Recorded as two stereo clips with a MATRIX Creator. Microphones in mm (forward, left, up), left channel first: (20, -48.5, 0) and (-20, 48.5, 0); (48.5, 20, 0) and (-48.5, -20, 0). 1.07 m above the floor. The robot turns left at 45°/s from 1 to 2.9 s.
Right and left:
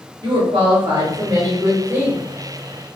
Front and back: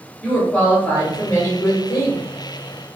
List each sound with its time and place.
0.2 s a woman speaking: 95° left, 1.0 m; by 2.2 s 35° left, 1.0 m